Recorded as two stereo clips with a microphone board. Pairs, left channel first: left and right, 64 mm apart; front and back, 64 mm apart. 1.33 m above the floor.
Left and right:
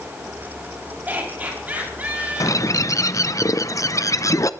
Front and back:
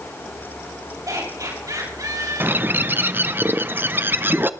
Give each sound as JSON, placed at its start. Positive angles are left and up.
{"t": 1.1, "sound": "laughter", "azimuth_deg": -150, "distance_m": 6.5}
{"t": 2.4, "sound": "a bird", "azimuth_deg": 120, "distance_m": 0.6}